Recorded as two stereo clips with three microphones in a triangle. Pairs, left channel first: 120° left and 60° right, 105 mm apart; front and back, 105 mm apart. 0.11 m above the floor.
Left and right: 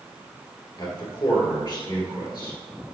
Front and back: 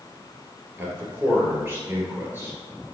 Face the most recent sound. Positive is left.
turn(degrees=120)